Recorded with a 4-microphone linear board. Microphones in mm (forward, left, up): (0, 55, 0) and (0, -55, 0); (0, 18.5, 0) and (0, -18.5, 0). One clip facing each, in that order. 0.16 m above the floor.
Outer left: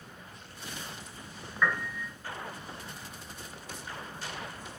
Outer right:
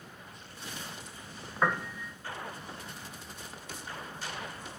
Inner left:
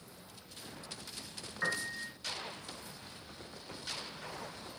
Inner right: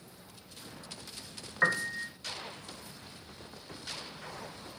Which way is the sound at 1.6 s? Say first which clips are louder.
Outer right 1 dB, inner right 7 dB; 45° right (ahead or behind).